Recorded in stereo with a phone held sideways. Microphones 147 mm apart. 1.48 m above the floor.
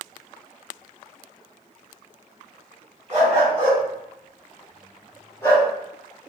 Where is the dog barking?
45° right (ahead or behind), 1.4 m; by 5.7 s 25° left (ahead or behind), 1.1 m.